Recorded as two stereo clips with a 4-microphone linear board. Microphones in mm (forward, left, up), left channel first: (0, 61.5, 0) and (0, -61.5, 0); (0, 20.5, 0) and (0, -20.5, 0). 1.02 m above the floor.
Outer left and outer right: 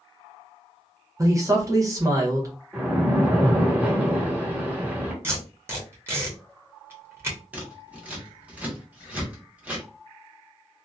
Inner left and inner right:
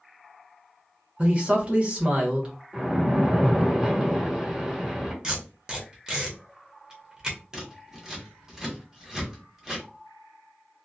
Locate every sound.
1.2 s a man speaking: 25° right (ahead or behind), 0.9 m
2.7 s a splash: 15° right (ahead or behind), 0.9 m
5.2 s tape being pulled: 20° right (ahead or behind), 0.9 m
7.5 s scissors: 10° right (ahead or behind), 0.9 m